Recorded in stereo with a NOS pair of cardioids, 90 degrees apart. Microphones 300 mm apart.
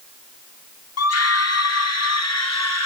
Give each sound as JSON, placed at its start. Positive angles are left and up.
{"t": 1.0, "sound": "a scream", "azimuth_deg": 55, "distance_m": 2.5}